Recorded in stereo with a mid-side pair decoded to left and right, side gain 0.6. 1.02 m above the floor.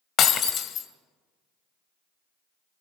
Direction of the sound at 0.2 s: 50° left.